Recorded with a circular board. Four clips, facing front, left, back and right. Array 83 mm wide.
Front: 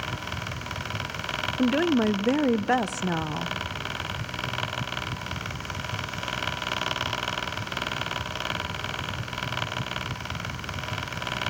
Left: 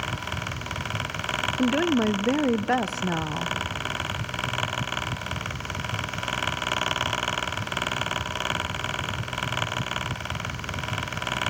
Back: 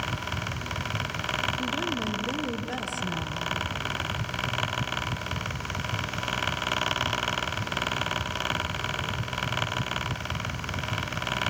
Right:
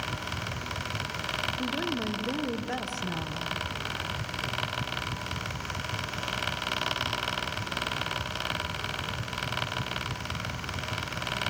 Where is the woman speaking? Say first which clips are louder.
Left 12 dB, front 8 dB; 40° left, 0.7 m.